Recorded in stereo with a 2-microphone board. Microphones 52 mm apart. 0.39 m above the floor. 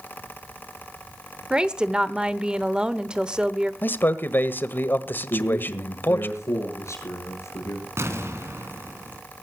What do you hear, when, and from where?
1.5 s a woman speaking: 15° right (ahead or behind), 1.1 m
3.8 s a man speaking: 45° left (ahead or behind), 1.4 m
5.3 s a man speaking: 80° left, 8 m
8.0 s an explosion: 65° right (ahead or behind), 2.5 m